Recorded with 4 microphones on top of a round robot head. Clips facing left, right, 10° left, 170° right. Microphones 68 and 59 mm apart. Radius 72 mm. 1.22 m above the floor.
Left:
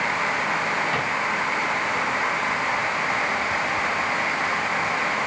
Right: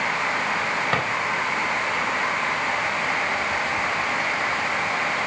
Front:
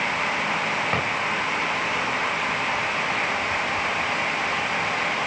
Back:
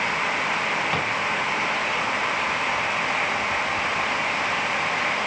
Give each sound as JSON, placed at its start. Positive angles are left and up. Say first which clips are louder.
{"t": 0.9, "sound": "a drawer", "louder": "right 2 dB, even", "azimuth_deg": -55, "distance_m": 3.5}